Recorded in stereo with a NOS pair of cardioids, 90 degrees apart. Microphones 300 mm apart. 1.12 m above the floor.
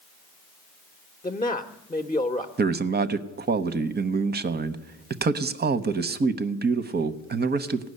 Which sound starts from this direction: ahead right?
A man speaking, at 2.6 s.